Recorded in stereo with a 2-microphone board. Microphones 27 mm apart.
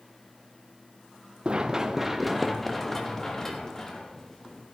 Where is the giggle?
I don't hear a giggle.